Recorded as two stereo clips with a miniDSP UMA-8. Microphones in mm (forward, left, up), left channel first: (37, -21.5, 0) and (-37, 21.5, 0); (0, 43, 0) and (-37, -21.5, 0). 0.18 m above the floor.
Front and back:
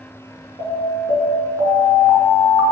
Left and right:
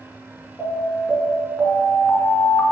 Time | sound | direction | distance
0.6 | an alarm | 115° left | 3 m